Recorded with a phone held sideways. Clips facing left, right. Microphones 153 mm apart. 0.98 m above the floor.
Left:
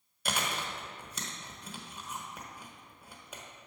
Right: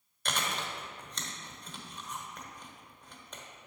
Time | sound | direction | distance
0.2 | chewing | 10° left (ahead or behind) | 1.0 m